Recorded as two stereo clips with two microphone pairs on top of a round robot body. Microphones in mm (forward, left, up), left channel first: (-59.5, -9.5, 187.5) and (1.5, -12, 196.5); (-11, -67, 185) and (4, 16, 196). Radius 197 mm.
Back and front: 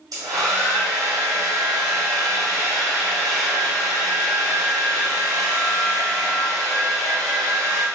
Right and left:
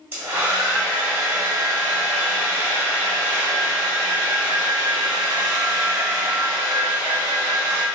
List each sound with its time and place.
0.1 s a hair dryer: 10° left, 1.6 m